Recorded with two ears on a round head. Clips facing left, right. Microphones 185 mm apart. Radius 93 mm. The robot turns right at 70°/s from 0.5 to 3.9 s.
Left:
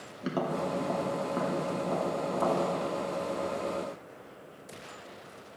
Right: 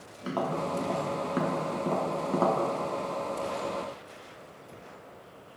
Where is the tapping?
25° left (ahead or behind), 1.1 m; by 2.6 s 50° right (ahead or behind), 1.1 m.